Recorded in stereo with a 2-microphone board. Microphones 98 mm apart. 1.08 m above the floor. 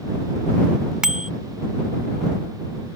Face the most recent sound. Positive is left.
turn(degrees=-10)  # may be behind; listen again after turning